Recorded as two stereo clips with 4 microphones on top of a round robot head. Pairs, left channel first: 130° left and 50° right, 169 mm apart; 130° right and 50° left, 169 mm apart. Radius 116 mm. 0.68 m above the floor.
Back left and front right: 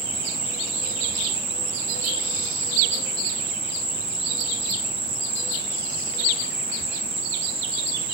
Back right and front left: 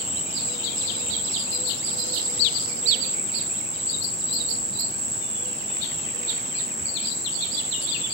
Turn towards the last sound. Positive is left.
turn(degrees=-10)